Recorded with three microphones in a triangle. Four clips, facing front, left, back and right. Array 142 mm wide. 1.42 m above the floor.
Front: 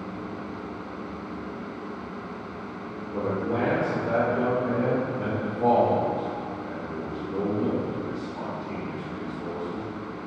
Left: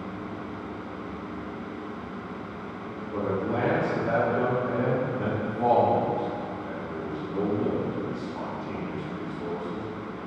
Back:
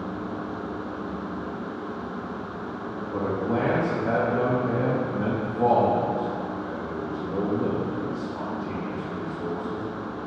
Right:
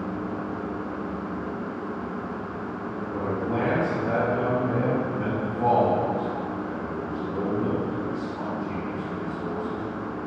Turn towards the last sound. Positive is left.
turn(degrees=180)